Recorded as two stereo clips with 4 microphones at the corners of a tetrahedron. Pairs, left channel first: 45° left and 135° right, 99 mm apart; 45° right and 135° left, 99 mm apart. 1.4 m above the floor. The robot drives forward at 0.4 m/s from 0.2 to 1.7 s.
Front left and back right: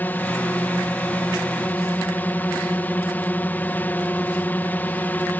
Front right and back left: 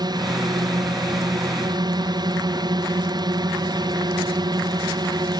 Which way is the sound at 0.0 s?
110° left.